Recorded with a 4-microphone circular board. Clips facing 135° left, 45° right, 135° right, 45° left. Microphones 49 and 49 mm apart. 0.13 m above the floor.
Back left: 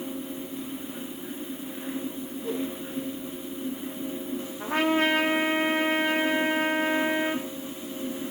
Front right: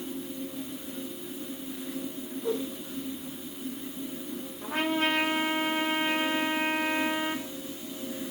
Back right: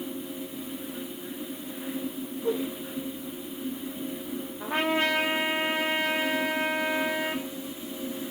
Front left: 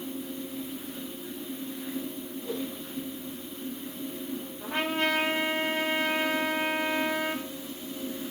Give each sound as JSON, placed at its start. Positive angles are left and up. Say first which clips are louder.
{"t": 2.4, "sound": "a whoosh", "louder": "front right 1 dB, back right 6 dB", "azimuth_deg": -115, "distance_m": 3.0}
{"t": 4.6, "sound": "a trumpet", "louder": "back left 4 dB, back right 3 dB", "azimuth_deg": 170, "distance_m": 1.4}